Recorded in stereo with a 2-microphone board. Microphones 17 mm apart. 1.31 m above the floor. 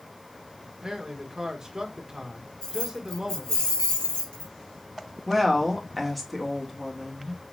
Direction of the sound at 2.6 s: 80° left.